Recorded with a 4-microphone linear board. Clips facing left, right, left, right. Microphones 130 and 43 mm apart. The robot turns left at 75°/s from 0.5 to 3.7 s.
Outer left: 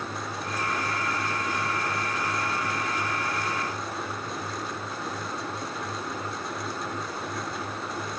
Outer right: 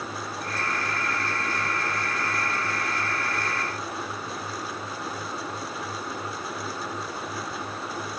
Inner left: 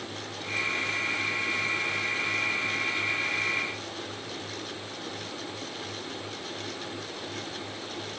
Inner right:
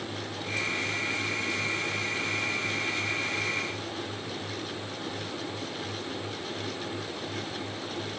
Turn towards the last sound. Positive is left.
No sound to turn to.